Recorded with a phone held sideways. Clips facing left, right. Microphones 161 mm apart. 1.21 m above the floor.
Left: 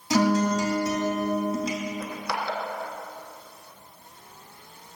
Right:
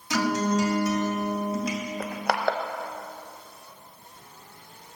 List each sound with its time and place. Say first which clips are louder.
0.1 s a guitar: left 3 dB; 25° left (ahead or behind), 2.5 m
2.0 s crushing: right 5 dB; 65° right (ahead or behind), 0.8 m